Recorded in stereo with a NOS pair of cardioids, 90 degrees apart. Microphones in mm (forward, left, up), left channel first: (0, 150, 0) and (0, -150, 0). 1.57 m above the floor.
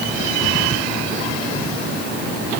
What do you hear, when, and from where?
Only background noise.